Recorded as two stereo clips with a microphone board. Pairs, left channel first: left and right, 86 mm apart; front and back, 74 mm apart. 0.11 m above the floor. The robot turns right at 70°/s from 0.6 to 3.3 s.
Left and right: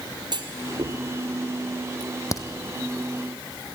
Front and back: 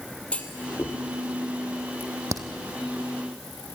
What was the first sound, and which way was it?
A clunk, 70° right.